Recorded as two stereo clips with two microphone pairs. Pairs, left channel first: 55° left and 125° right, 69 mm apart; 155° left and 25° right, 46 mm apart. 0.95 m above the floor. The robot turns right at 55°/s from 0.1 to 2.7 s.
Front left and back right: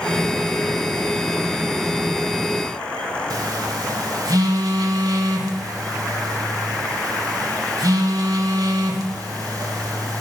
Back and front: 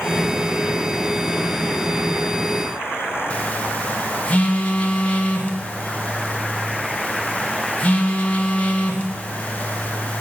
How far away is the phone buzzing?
About 0.8 m.